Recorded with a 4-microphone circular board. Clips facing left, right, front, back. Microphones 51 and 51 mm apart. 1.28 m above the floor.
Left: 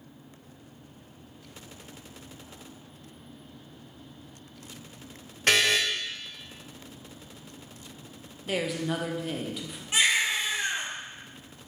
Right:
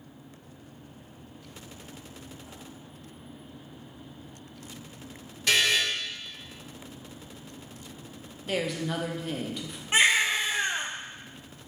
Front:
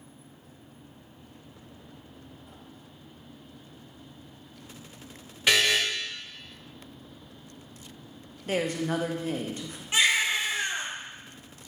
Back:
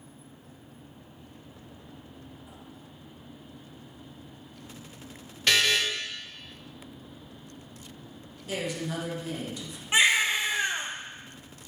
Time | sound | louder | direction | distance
5.5 | a buzzer | left 1 dB, front 1 dB | 75° left | 0.8 m
8.5 | a woman speaking | left 1 dB, front 5 dB | 5° left | 0.6 m
9.9 | a baby crying | right 3 dB, back 2 dB | 125° right | 0.5 m